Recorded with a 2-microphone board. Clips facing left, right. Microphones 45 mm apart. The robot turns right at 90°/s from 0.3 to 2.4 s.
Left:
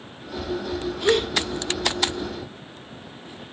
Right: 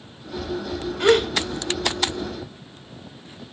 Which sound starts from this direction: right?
A gasp, at 1.0 s.